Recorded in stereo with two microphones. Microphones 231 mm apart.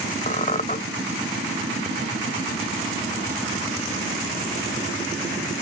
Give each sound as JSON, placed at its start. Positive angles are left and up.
{"t": 0.3, "sound": "a squeak", "side_deg": 35, "distance_m": 0.6}